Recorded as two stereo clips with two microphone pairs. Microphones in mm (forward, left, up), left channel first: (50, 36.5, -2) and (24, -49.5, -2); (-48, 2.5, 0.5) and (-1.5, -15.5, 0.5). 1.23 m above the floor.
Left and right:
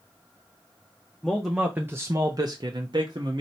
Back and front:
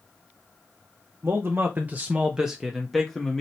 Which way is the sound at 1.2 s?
15° right.